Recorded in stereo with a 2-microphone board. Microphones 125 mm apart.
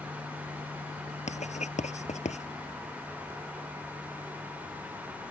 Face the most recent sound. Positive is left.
turn(degrees=70)  # may be behind; listen again after turning